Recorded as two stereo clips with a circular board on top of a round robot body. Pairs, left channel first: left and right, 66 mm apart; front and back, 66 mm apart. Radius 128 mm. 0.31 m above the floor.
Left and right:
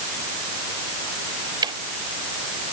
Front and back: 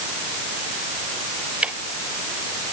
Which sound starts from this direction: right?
Ticking, at 1.6 s.